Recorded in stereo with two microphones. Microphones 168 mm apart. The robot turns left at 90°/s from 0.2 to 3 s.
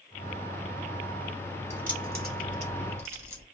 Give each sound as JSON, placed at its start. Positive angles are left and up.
{"t": 1.7, "sound": "keys jangling", "side_deg": -40, "distance_m": 1.9}